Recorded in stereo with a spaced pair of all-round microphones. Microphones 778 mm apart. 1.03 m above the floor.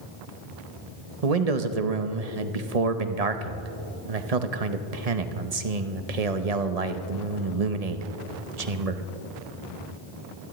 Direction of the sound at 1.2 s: 50° right (ahead or behind).